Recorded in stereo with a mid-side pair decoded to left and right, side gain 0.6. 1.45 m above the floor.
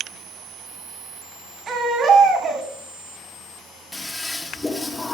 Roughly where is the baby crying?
Ahead right.